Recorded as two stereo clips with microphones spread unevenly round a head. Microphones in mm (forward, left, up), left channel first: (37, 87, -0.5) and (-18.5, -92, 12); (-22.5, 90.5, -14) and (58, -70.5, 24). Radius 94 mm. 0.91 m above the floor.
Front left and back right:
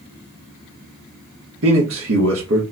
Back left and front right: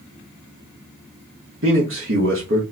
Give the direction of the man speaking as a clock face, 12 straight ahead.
3 o'clock.